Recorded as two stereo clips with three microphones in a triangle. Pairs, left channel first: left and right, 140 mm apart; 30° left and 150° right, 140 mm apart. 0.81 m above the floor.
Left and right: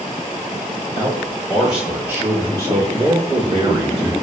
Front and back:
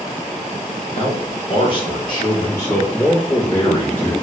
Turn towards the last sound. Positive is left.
turn(degrees=-50)